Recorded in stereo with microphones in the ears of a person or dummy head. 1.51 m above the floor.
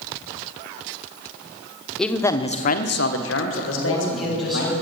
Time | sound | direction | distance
2.0 | a man speaking | centre (ahead or behind) | 1.0 m
3.7 | a man speaking | 5° left (ahead or behind) | 7.5 m